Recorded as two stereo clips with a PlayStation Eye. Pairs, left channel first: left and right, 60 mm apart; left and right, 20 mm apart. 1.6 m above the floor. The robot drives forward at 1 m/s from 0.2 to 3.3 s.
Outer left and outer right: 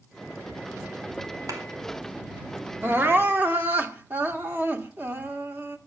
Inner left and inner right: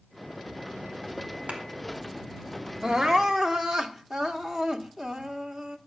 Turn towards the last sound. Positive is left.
turn(degrees=-30)  # may be behind; listen again after turning